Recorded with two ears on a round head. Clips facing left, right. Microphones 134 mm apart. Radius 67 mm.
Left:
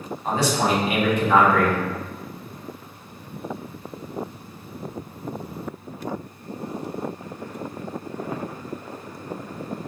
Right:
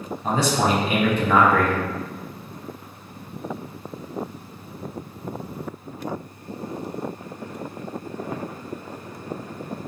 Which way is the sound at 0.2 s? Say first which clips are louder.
Right 1 dB; 70° right (ahead or behind).